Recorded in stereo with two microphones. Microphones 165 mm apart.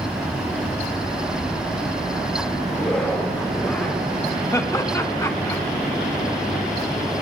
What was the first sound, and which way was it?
A zipper, 5° left (ahead or behind).